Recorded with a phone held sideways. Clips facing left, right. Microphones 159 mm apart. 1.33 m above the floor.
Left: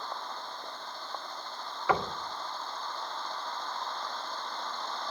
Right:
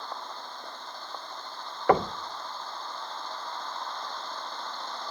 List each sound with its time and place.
1.9 s knocking: 50° right (ahead or behind), 0.6 m